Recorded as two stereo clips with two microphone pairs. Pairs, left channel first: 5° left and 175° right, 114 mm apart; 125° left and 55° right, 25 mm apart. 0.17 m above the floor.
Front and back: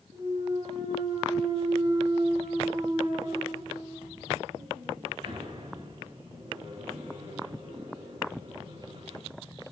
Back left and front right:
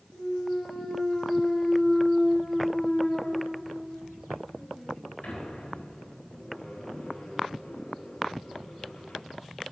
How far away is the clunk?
About 9.5 m.